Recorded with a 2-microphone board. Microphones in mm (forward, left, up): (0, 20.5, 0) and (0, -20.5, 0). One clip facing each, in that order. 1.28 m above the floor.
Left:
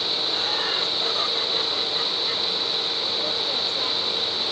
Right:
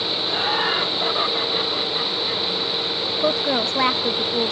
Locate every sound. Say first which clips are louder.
0.3 s laughter: right 8 dB; 30° right (ahead or behind); by 2.4 s 5° left (ahead or behind)
3.2 s a woman speaking: right 6 dB; 80° right